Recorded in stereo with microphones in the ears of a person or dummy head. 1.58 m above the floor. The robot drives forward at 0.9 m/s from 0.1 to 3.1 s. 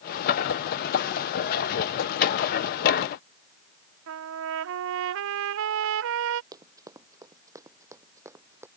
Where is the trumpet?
65° right (ahead or behind).